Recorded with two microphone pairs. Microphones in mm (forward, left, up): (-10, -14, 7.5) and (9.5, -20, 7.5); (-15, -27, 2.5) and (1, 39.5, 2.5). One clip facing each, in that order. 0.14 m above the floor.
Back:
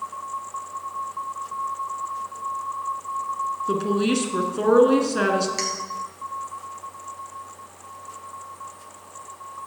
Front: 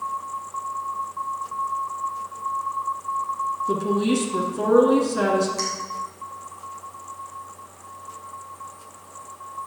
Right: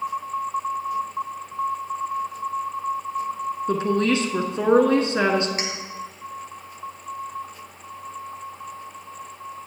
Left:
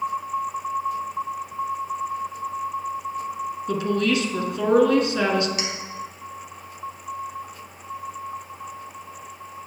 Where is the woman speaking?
150° right, 1.3 m.